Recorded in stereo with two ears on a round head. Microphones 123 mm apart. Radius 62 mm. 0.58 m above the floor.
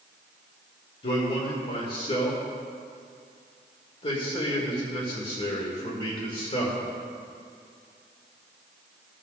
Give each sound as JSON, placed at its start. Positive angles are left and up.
{"t": 1.0, "sound": "a man speaking", "side_deg": 40, "distance_m": 1.8}